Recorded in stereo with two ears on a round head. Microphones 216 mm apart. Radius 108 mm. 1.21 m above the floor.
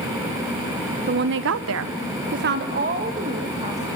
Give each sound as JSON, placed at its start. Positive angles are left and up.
{"t": 1.1, "sound": "a woman speaking", "side_deg": -40, "distance_m": 1.0}